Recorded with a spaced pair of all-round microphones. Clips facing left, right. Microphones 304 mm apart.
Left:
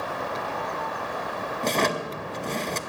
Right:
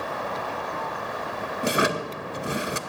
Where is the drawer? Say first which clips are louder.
Right 1 dB; 10° right (ahead or behind), 0.5 m.